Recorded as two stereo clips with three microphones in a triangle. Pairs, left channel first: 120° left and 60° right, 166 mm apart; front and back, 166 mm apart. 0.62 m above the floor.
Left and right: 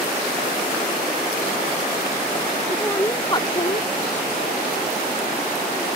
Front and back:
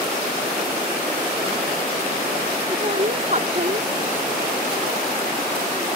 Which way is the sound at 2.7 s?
140° right.